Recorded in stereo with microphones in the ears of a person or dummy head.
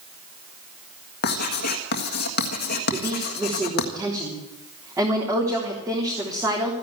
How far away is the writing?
About 1.7 m.